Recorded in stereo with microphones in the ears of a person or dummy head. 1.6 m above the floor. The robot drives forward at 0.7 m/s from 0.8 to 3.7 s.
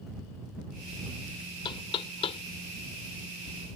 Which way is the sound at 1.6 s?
30° left (ahead or behind).